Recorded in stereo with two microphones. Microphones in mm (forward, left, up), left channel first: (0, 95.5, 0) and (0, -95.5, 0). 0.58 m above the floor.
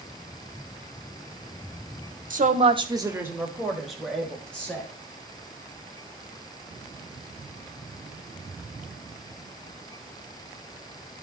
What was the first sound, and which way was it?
A woman speaking, 45° right (ahead or behind).